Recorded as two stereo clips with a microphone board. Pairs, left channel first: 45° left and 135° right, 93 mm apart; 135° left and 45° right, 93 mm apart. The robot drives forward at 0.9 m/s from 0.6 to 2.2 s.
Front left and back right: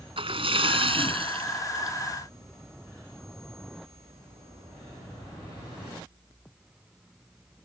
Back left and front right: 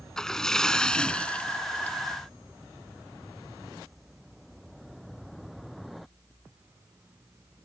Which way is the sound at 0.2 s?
140° right.